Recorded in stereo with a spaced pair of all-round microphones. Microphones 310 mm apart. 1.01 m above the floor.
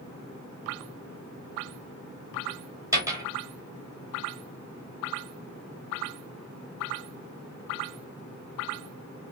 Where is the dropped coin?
10° right (ahead or behind), 1.4 m.